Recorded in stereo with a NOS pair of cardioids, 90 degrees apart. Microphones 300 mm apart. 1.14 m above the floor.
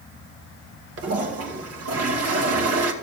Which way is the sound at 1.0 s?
55° right.